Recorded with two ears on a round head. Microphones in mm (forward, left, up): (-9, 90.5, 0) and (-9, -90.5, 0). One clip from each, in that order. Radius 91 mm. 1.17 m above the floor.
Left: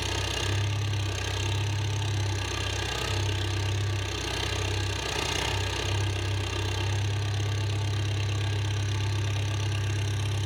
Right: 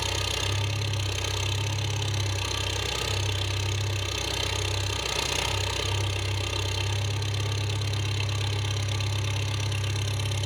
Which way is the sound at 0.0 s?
15° right (ahead or behind).